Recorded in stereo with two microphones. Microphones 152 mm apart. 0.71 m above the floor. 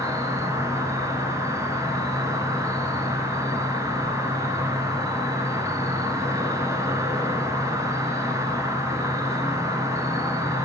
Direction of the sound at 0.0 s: 20° right (ahead or behind).